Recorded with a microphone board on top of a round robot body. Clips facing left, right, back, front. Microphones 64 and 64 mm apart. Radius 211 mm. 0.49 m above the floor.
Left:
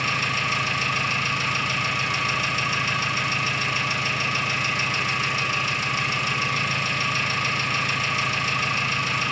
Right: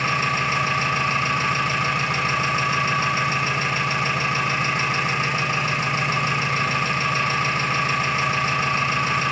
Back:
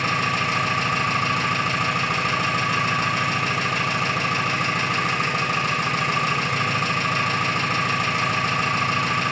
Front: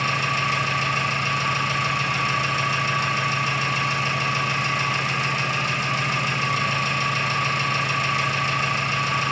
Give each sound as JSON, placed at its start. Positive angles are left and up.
{"t": 0.0, "sound": "an engine running", "azimuth_deg": -145, "distance_m": 1.4}